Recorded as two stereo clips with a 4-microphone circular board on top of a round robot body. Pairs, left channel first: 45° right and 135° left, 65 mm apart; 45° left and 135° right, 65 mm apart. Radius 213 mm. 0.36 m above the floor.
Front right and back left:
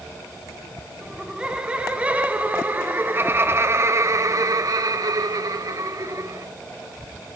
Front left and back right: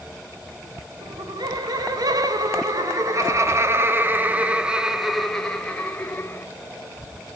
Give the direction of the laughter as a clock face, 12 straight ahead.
5 o'clock.